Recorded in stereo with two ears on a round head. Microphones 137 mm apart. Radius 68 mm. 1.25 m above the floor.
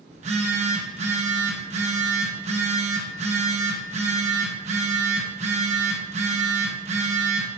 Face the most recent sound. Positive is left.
turn(degrees=-45)  # may be behind; listen again after turning